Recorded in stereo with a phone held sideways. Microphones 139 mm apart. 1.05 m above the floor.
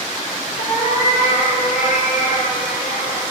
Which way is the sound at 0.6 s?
70° left (ahead or behind).